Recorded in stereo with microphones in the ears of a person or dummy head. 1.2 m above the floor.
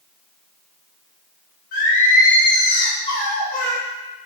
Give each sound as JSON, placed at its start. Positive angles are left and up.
{"t": 1.7, "sound": "singing", "side_deg": 50, "distance_m": 1.9}